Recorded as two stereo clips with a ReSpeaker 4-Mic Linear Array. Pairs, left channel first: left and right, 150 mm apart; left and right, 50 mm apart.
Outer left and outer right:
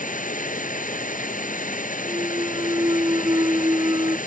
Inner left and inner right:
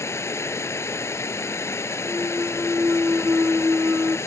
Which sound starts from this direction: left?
Running water, at 0.0 s.